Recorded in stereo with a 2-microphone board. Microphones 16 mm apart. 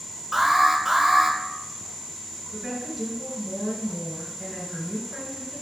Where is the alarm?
15° right (ahead or behind), 0.8 m.